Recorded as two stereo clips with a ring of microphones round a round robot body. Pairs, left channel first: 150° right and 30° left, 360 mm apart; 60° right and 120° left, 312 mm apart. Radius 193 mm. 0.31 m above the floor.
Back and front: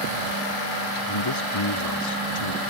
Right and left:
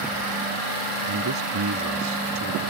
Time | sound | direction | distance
1.1 | a man speaking | 170° left | ?